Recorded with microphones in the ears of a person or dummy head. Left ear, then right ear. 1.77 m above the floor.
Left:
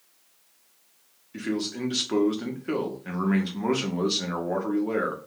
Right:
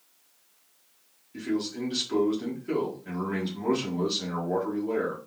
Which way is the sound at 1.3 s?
35° left (ahead or behind).